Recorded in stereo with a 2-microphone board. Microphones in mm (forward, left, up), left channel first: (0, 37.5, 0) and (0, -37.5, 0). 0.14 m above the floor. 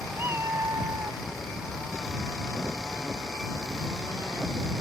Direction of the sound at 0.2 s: 30° right (ahead or behind).